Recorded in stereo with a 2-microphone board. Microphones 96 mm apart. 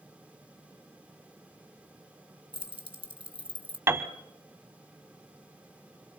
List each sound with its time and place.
2.5 s keys jangling: 65° right (ahead or behind), 2 m
3.9 s a piano: 25° right (ahead or behind), 1.2 m